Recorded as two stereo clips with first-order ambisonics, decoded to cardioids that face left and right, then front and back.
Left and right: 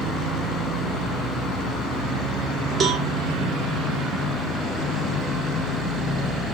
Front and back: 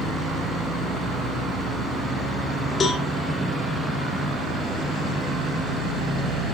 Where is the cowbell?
50° right, 1.0 m.